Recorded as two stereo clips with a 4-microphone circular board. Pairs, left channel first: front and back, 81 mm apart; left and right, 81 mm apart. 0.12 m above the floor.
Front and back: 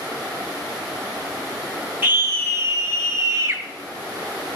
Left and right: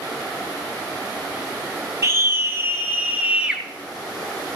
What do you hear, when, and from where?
2.0 s a scream: 120° right, 2.5 m; by 3.6 s 165° right, 2 m